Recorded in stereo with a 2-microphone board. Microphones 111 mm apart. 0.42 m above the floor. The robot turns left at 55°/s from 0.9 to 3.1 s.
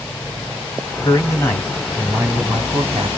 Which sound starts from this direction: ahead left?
A man speaking, at 1.0 s.